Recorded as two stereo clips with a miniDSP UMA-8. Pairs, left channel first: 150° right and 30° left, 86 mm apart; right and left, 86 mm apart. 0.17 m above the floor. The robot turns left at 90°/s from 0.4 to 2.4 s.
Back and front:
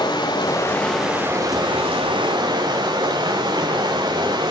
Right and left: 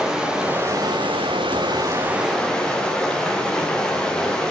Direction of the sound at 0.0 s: 175° left.